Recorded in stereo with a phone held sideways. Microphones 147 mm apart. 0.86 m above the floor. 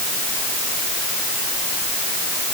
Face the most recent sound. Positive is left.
No sound to turn to.